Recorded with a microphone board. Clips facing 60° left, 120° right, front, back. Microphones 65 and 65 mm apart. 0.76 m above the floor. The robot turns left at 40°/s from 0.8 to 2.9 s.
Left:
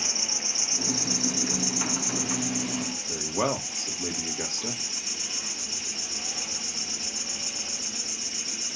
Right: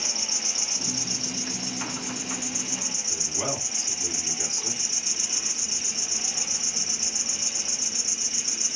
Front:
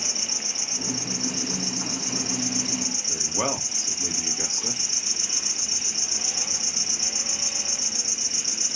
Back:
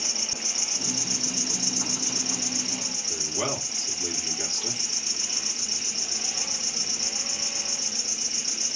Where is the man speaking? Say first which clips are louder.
Left 5 dB, front 2 dB; 60° left, 1.5 m.